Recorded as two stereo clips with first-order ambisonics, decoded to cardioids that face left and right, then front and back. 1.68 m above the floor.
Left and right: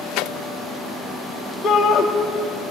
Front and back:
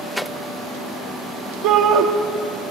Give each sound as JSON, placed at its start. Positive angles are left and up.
{"t": 1.6, "sound": "a shout", "azimuth_deg": 165, "distance_m": 1.0}